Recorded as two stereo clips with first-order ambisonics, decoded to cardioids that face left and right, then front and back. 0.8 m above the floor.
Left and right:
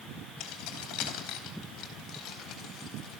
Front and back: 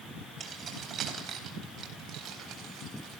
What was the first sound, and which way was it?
Keys jangling, 115° left.